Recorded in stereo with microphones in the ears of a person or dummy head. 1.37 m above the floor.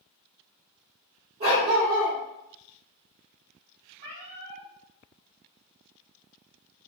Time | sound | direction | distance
1.4 | a dog barking | 35° right (ahead or behind) | 1.2 m
4.0 | a cat meowing | 35° right (ahead or behind) | 0.9 m